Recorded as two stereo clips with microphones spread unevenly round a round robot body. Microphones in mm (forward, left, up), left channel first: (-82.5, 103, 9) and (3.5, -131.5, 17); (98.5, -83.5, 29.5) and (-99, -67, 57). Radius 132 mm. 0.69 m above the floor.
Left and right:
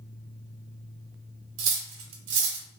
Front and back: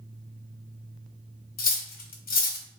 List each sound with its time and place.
1.6 s cutlery clinking: 50° right, 0.6 m